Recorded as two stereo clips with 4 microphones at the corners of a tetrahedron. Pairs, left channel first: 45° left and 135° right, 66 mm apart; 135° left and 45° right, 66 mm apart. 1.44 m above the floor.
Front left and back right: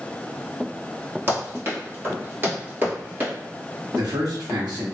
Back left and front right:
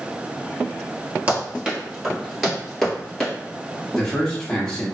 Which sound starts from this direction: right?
Running footsteps, at 1.3 s.